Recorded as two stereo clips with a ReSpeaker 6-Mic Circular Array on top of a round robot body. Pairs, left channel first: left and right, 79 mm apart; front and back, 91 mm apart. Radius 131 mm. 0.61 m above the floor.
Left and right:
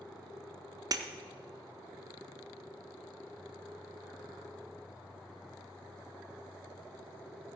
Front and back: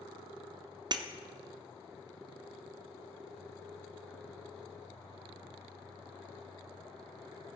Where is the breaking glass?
135° right, 0.8 m.